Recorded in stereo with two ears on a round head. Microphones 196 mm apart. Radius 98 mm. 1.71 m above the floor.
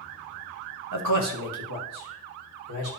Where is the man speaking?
90° right, 1.0 m; by 2.9 s 80° right, 2 m.